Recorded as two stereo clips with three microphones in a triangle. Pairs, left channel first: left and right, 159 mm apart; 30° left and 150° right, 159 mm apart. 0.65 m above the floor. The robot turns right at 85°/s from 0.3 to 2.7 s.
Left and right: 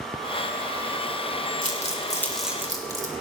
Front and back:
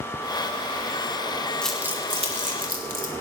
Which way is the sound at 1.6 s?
110° left.